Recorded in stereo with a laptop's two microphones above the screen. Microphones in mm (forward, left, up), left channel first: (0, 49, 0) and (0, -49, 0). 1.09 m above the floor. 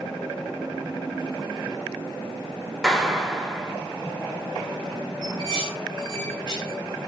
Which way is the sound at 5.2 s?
45° left (ahead or behind).